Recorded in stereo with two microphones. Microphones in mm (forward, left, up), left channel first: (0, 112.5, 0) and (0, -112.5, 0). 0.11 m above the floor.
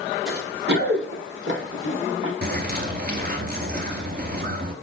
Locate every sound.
0.3 s running footsteps: 45° right (ahead or behind), 3.5 m; by 2.3 s 65° right (ahead or behind), 3 m
2.4 s a bird: 45° right (ahead or behind), 1.0 m